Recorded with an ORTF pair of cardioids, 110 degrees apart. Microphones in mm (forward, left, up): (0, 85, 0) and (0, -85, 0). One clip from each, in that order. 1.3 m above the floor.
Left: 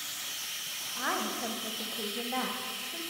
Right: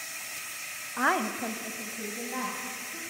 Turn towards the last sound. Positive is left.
turn(degrees=35)